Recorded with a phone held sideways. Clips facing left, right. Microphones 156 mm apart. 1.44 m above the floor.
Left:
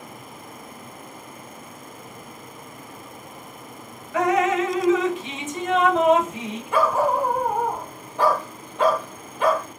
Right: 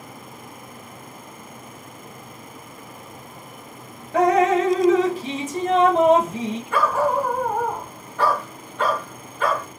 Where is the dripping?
35° right (ahead or behind), 0.7 m.